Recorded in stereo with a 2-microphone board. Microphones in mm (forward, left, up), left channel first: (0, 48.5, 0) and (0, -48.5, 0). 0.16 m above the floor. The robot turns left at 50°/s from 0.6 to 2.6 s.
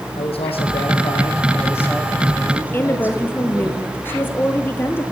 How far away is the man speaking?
About 6 m.